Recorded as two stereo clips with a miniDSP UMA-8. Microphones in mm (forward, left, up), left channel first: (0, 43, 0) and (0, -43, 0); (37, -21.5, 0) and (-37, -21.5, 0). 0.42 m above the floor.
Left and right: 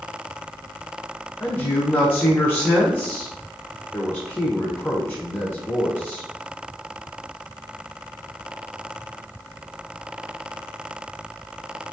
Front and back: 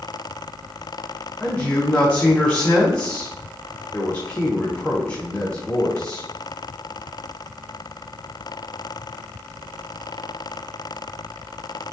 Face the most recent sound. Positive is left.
turn(degrees=50)